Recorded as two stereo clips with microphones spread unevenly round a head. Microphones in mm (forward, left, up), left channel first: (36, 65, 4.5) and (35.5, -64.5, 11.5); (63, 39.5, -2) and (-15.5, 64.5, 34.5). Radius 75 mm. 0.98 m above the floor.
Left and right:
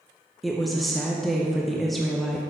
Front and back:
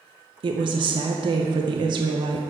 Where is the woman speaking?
175° left, 0.6 m.